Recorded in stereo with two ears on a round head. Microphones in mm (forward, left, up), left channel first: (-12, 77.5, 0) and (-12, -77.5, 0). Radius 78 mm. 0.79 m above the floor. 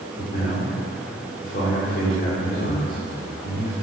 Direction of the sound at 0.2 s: 55° left (ahead or behind).